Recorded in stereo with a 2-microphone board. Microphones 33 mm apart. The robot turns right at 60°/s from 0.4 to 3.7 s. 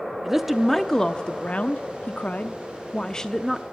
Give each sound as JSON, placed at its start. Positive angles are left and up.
{"t": 0.2, "sound": "a woman speaking", "azimuth_deg": -10, "distance_m": 0.8}